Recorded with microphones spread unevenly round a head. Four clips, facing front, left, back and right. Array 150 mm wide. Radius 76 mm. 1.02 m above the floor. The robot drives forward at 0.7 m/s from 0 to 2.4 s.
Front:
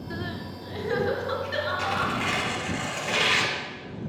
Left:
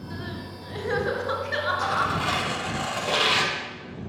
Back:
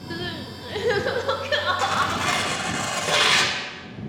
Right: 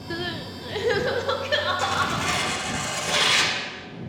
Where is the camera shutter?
I don't hear a camera shutter.